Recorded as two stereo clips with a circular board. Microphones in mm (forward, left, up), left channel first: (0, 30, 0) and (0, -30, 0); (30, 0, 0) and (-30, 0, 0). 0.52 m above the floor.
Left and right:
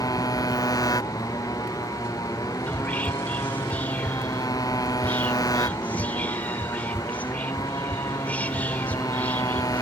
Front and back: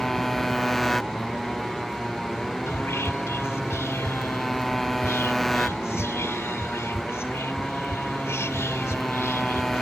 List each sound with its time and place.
0.0 s a motorcycle: 85° left
2.7 s whispering: 30° left